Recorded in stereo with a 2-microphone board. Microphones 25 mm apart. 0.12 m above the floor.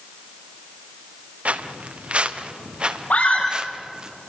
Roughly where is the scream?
Left.